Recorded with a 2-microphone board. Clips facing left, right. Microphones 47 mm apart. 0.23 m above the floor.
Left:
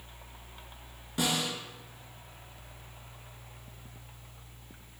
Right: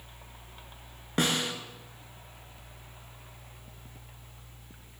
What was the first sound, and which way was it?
A snare drum, 55° right (ahead or behind).